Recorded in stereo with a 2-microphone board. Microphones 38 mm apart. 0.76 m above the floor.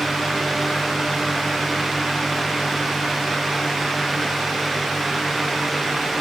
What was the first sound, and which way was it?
Only background noise.